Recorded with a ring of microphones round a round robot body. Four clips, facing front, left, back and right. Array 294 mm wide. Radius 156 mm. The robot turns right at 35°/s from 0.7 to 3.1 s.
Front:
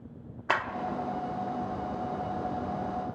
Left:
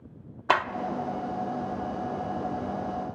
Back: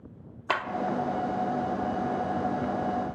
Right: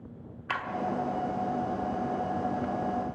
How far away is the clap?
About 0.8 m.